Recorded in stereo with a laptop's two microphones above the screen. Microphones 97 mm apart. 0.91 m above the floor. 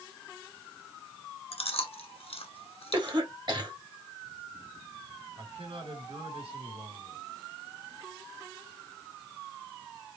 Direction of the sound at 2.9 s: 50° right (ahead or behind).